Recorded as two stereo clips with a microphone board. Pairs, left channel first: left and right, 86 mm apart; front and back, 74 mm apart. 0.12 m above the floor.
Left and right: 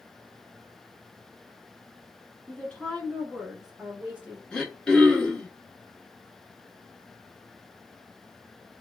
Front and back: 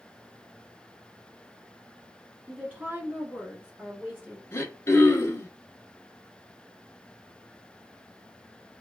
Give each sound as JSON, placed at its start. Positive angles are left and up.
{"t": 2.5, "sound": "a woman speaking", "azimuth_deg": 135, "distance_m": 1.4}
{"t": 4.5, "sound": "throat clearing", "azimuth_deg": 15, "distance_m": 0.9}